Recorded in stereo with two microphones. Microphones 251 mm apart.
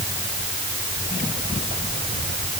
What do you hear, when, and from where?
Only background noise.